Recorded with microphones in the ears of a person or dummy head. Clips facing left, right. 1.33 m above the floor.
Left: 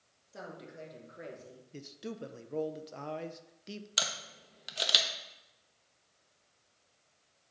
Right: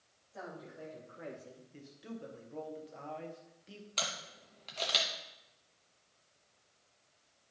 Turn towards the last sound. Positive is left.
turn(degrees=20)  # may be behind; listen again after turning